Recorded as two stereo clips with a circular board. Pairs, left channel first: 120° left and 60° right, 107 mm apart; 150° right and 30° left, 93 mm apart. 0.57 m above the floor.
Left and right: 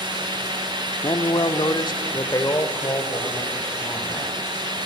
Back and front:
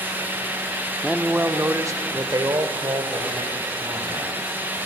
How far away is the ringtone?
No ringtone in this recording.